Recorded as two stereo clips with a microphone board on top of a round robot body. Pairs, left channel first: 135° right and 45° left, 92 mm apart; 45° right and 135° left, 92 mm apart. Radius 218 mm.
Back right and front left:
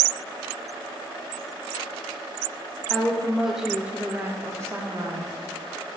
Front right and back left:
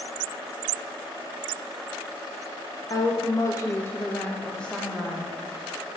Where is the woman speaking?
55° right, 1.4 m; by 5.4 s 50° left, 1.4 m.